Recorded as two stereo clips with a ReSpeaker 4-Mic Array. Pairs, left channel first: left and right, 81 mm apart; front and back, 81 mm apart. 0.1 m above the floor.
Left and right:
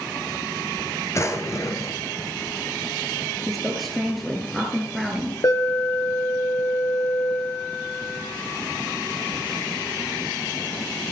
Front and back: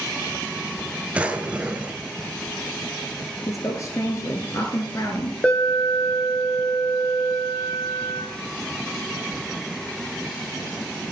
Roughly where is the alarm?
Left.